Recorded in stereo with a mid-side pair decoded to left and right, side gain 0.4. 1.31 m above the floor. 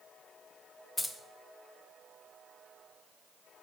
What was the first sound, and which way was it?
Keys jangling, 20° left.